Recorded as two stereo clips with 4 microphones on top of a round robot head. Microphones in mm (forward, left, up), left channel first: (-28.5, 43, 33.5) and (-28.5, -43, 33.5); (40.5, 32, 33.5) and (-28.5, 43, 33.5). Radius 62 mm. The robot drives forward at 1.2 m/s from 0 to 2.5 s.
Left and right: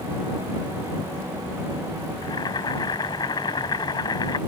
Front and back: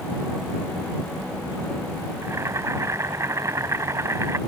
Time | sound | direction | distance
2.2 | boiling | 120° left | ?